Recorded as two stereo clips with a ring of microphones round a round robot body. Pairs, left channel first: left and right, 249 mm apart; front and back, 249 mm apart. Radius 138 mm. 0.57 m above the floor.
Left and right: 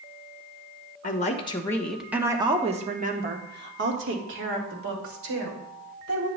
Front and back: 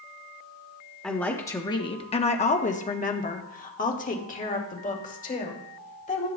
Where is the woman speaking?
85° left, 0.9 m; by 6.3 s 60° right, 2.5 m.